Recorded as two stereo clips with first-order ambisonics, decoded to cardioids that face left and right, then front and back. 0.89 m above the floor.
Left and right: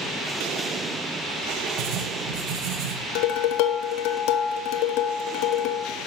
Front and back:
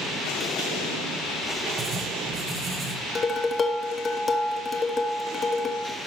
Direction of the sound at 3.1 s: 75° left.